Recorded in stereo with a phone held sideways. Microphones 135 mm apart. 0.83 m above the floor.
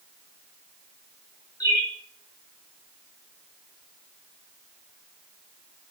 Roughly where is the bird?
Left.